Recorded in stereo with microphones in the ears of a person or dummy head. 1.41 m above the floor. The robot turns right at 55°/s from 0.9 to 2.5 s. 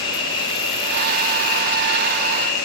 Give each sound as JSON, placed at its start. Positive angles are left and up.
{"t": 0.0, "sound": "an insect", "azimuth_deg": 25, "distance_m": 1.5}